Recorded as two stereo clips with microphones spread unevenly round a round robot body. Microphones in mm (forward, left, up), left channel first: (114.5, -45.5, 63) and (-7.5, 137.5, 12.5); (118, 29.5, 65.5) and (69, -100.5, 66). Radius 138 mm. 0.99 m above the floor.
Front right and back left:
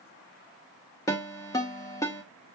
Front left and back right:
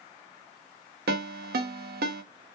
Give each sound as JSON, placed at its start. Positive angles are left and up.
{"t": 1.1, "sound": "a ringtone", "azimuth_deg": -130, "distance_m": 0.6}